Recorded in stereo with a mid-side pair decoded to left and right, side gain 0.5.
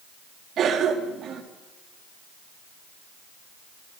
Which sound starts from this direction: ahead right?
A cough, at 0.6 s.